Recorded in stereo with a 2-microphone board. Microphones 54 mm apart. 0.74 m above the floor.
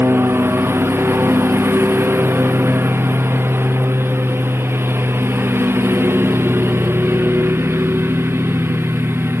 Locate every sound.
0.0 s a lawn mower: 50° right (ahead or behind)